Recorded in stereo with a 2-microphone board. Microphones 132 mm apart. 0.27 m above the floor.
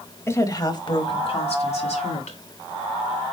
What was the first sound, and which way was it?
A woman speaking, 20° left (ahead or behind).